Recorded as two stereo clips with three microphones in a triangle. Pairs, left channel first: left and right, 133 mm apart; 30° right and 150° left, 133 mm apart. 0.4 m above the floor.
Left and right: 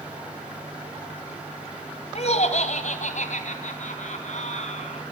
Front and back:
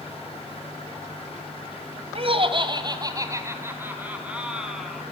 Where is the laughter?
115° left, 2.5 m; by 5.0 s 60° left, 4 m.